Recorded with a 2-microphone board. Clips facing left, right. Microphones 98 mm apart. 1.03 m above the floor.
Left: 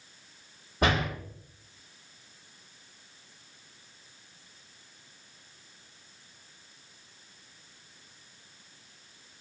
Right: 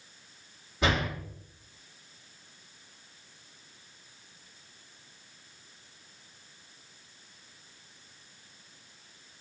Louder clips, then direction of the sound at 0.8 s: Left 2 dB; 45° left (ahead or behind).